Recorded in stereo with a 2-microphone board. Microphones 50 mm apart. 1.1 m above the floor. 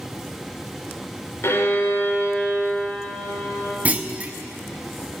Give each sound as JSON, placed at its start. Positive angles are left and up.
{"t": 1.4, "sound": "a violin", "side_deg": 60, "distance_m": 2.5}
{"t": 3.9, "sound": "a clunk", "side_deg": -30, "distance_m": 0.7}